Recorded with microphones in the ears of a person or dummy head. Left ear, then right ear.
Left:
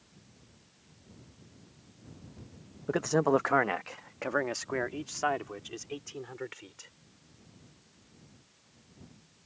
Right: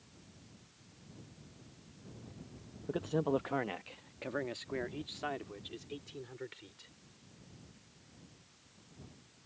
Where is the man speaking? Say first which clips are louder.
Left 7 dB; 65° left (ahead or behind); by 6.9 s 35° left (ahead or behind).